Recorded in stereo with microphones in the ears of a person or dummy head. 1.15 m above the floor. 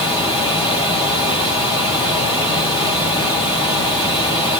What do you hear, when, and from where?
0.0 s running water: 25° left (ahead or behind), 7 m